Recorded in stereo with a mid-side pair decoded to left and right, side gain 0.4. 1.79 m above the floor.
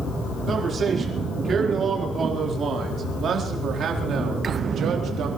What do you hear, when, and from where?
0.5 s a man speaking: 50° right, 5 m; by 5.3 s 75° right, 4 m